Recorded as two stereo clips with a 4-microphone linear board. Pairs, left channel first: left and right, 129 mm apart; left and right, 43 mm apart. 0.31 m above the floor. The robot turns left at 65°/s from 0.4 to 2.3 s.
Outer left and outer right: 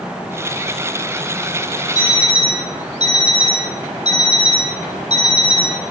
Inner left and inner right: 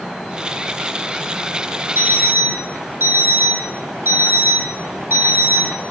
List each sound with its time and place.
1.9 s an alarm clock: 85° right, 5 m; by 5.8 s 65° right (ahead or behind), 5 m